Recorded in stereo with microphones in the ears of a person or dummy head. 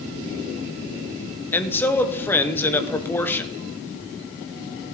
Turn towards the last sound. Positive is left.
turn(degrees=10)  # may be behind; listen again after turning